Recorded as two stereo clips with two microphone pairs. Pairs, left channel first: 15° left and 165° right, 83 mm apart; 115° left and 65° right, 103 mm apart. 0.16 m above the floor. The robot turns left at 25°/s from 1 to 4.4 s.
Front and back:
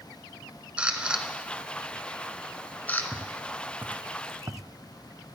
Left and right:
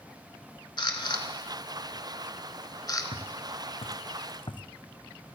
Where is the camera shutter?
125° left, 0.9 m; by 3.0 s 75° left, 0.9 m.